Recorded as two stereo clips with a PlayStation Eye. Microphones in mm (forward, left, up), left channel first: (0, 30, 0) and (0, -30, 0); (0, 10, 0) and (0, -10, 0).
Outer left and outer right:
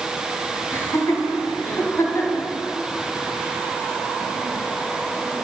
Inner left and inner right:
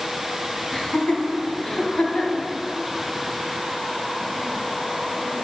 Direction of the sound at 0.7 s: 35° left (ahead or behind).